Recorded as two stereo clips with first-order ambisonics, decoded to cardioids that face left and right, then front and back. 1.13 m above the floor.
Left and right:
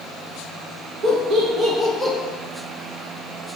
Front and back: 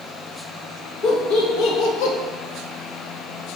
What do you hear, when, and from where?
1.0 s laughter: 45° right, 1.1 m; by 2.2 s 5° right, 0.6 m